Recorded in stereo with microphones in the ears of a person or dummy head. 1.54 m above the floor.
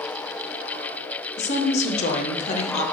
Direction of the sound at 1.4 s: 35° left (ahead or behind).